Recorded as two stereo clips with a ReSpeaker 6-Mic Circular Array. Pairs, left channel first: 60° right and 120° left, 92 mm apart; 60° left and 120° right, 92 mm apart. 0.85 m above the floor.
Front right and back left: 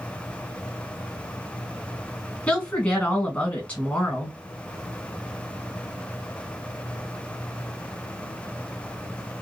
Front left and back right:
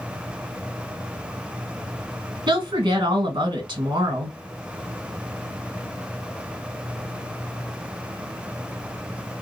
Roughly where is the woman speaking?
Behind right.